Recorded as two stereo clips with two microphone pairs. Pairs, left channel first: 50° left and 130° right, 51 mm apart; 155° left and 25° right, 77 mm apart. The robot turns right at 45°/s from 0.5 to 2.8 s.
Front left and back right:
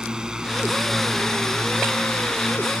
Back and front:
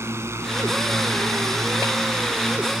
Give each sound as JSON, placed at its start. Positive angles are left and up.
{"t": 0.0, "sound": "a drone", "azimuth_deg": -60}